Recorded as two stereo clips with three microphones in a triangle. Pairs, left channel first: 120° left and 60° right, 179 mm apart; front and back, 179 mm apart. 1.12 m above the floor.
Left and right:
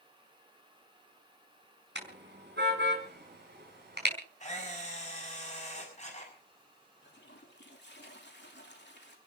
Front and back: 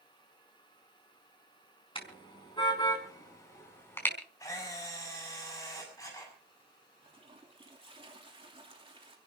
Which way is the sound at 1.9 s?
60° right.